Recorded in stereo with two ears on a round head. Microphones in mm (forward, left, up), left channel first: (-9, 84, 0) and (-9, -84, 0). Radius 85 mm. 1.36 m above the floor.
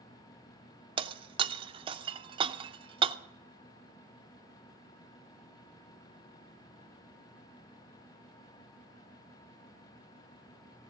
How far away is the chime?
I don't hear a chime.